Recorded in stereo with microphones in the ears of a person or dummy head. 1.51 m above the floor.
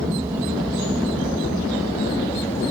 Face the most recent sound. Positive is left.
turn(degrees=20)  # may be behind; listen again after turning